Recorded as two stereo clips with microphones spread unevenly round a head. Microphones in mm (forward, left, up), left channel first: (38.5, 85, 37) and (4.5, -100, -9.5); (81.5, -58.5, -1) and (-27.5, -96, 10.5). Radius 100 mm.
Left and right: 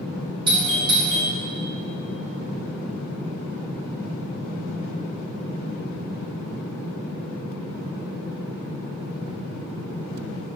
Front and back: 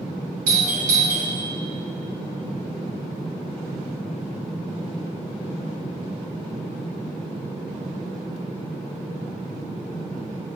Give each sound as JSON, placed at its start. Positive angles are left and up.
{"t": 0.5, "sound": "a doorbell", "azimuth_deg": -170, "distance_m": 5.0}